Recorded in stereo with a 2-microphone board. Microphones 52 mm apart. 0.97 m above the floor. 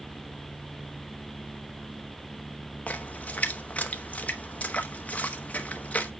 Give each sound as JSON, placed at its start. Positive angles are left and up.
{"t": 2.9, "sound": "a splash", "side_deg": 30, "distance_m": 1.0}